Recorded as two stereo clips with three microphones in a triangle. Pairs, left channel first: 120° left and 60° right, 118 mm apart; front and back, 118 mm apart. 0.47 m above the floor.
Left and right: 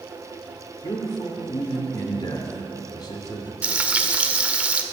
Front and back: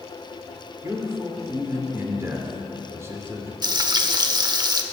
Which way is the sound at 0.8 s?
130° left.